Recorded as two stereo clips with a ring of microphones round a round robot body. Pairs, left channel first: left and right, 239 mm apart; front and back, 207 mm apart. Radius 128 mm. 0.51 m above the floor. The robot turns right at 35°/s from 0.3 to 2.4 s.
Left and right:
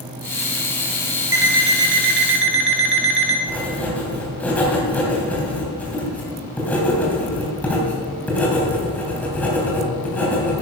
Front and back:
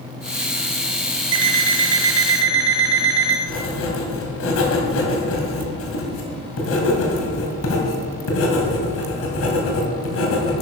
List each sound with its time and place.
1.3 s an alarm clock: 170° right, 1.7 m; by 3.4 s 130° right, 1.7 m
3.5 s writing: 5° left, 2.5 m